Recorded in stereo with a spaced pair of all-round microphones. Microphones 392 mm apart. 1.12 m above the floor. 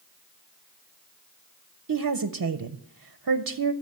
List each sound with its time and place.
1.9 s a woman speaking: 60° right (ahead or behind), 0.6 m